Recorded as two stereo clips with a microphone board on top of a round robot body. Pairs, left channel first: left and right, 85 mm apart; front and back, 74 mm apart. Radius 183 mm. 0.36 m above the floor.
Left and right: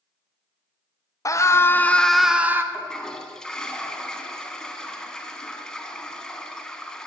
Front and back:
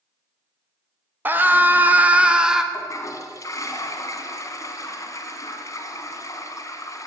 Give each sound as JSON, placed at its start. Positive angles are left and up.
{"t": 1.2, "sound": "a scream", "azimuth_deg": 125, "distance_m": 1.4}
{"t": 2.7, "sound": "a toilet flushing", "azimuth_deg": 10, "distance_m": 1.9}